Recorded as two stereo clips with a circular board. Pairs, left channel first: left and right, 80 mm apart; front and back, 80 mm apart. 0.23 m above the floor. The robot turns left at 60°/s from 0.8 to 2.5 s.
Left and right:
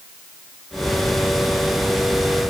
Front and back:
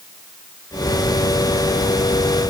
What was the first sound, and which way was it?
Only background noise.